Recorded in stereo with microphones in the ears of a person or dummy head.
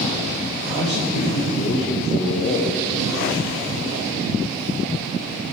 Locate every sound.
0.7 s a man speaking: 30° left (ahead or behind), 0.5 m